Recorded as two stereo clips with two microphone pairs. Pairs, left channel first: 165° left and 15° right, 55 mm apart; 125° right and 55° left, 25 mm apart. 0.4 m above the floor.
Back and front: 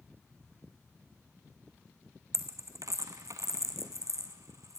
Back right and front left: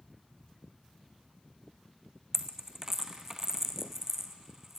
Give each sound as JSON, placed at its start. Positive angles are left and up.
{"t": 2.3, "sound": "a dropped coin", "azimuth_deg": -15, "distance_m": 1.5}